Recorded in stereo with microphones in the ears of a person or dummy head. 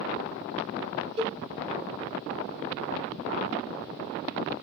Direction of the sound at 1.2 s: 70° right (ahead or behind).